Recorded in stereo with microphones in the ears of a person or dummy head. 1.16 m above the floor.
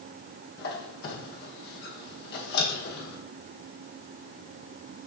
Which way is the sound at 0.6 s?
75° left (ahead or behind).